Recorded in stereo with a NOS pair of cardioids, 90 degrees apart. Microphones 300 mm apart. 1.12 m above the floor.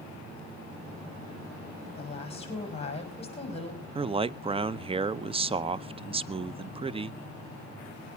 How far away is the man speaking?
About 0.7 m.